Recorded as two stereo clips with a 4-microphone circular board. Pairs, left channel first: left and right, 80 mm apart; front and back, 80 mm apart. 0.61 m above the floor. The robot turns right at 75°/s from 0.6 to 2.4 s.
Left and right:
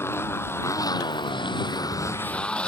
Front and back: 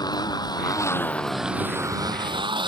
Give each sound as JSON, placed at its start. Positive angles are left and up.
{"t": 0.0, "sound": "a motorcycle", "azimuth_deg": 35}